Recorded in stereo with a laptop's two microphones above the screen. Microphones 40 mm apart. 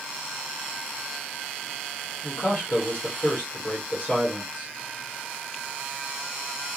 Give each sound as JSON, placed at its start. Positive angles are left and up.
{"t": 2.2, "sound": "a man speaking", "side_deg": 35, "distance_m": 1.4}